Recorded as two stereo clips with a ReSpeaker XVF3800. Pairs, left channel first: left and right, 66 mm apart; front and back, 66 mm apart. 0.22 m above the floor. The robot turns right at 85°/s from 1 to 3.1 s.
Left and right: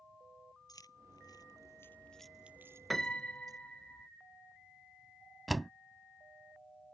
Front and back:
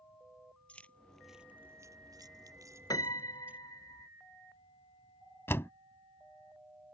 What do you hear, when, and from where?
0.7 s keys jangling: 70° left; by 3.6 s 110° right
2.9 s a piano: straight ahead; by 4.1 s 15° left
5.5 s a door slam: straight ahead